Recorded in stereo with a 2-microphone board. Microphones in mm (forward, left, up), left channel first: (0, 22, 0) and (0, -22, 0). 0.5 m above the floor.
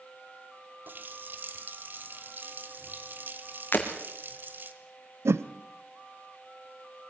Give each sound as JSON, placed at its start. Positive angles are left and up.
{"t": 0.9, "sound": "a running tap", "side_deg": -50, "distance_m": 1.4}
{"t": 3.7, "sound": "breaking glass", "side_deg": 45, "distance_m": 2.5}
{"t": 5.2, "sound": "a whoosh", "side_deg": -80, "distance_m": 0.7}